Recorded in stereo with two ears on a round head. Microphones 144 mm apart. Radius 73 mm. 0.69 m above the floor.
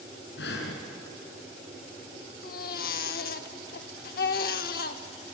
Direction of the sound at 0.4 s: 80° left.